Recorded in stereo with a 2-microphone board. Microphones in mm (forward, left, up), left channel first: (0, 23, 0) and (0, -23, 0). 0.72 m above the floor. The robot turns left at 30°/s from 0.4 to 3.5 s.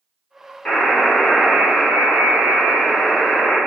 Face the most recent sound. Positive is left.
turn(degrees=60)